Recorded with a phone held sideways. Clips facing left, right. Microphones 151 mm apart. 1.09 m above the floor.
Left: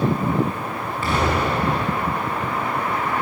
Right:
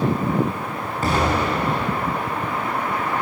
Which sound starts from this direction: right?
An explosion, at 1.0 s.